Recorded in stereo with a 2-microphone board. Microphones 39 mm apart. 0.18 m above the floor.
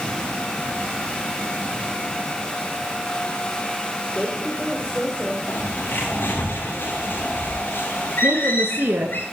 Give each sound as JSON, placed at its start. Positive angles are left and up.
{"t": 4.1, "sound": "a woman speaking", "side_deg": 25, "distance_m": 6.0}
{"t": 5.5, "sound": "a bird", "side_deg": 60, "distance_m": 10.0}
{"t": 8.2, "sound": "a woman speaking", "side_deg": -60, "distance_m": 2.5}